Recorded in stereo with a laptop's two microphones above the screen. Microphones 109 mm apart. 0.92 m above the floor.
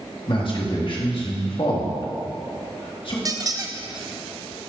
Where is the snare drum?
No snare drum in this recording.